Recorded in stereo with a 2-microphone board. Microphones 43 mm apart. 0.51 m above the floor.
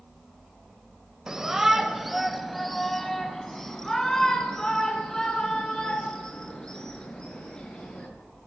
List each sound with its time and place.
1.3 s a shout: 15° right (ahead or behind), 2.5 m; by 8.1 s 20° left (ahead or behind), 9 m